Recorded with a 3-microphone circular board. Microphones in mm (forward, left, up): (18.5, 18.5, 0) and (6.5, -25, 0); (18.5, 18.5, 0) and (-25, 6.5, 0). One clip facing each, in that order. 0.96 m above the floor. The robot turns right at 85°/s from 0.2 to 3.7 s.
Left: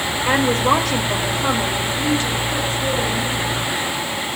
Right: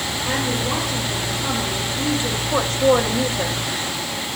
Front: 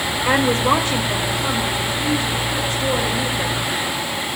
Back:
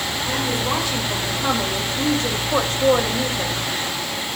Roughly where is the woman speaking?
Ahead.